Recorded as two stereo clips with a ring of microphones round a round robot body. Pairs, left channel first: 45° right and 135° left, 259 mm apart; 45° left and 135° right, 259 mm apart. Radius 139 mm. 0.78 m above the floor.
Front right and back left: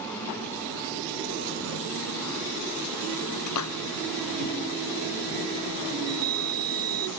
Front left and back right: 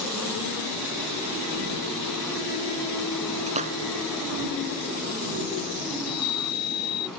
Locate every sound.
3.5 s a splash: 70° right
6.0 s a chime: 100° left